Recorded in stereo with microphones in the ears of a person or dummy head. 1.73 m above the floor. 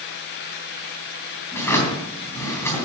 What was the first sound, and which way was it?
A drawer, 20° left (ahead or behind).